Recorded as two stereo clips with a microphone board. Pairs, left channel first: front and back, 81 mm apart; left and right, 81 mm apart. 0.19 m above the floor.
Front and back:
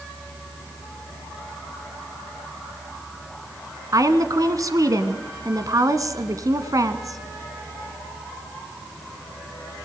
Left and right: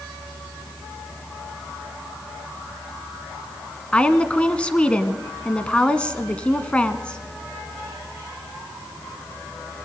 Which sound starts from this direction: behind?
A woman speaking, at 3.9 s.